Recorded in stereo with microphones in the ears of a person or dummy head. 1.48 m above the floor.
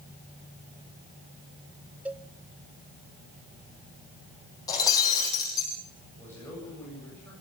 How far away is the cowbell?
About 0.6 m.